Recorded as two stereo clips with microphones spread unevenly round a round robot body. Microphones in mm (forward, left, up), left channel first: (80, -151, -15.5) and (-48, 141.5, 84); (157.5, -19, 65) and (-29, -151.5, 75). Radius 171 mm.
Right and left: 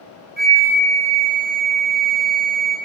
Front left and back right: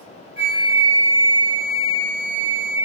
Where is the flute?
85° right, 1.6 m.